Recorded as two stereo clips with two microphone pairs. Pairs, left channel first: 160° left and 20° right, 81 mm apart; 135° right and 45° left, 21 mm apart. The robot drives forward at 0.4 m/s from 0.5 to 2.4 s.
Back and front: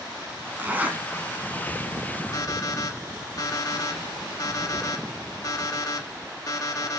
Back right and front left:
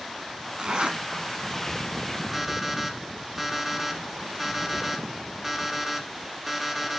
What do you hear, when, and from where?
0.6 s a zipper: 45° left, 1.6 m; by 1.0 s 50° left, 1.5 m
2.3 s an alarm clock: 120° left, 1.3 m